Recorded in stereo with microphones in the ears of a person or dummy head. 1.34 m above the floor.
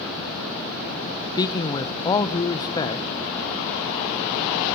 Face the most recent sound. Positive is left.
turn(degrees=25)  # may be behind; listen again after turning